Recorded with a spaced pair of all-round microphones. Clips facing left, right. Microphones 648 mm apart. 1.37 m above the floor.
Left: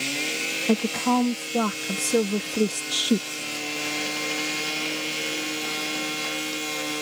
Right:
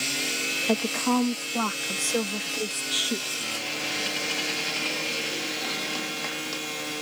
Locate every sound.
0.7 s a woman speaking: 55° left (ahead or behind)